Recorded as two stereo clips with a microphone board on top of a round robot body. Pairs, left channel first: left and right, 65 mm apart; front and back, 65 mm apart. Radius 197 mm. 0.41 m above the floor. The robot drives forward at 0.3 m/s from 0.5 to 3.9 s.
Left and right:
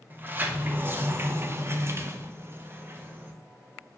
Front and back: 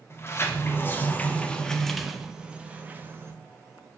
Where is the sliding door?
40° right, 0.9 m; by 3.3 s 135° right, 0.8 m.